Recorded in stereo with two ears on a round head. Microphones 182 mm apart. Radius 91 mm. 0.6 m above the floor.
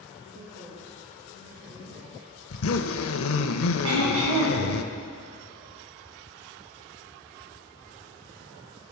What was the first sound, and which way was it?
A woman speaking, 55° right (ahead or behind).